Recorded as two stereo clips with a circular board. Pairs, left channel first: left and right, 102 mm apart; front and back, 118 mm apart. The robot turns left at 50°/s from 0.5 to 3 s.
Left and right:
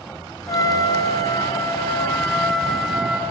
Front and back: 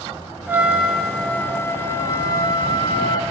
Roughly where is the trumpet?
Behind left.